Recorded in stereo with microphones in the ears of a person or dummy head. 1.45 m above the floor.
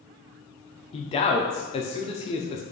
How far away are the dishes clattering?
No dishes clattering in this recording.